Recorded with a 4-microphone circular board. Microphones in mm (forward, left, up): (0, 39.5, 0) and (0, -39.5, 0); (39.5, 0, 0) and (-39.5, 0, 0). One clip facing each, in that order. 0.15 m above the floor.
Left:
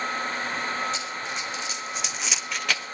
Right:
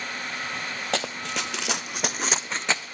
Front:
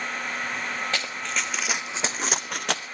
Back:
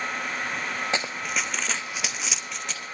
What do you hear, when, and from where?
0.9 s running footsteps: 110° right, 0.8 m; by 2.8 s 20° right, 0.8 m